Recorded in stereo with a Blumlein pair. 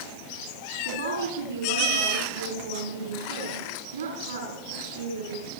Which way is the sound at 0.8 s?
70° right.